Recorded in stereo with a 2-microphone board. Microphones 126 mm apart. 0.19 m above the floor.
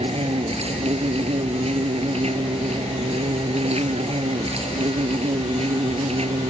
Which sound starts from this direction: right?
An insect, at 0.0 s.